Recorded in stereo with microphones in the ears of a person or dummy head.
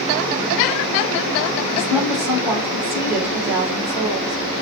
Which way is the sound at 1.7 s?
15° right (ahead or behind).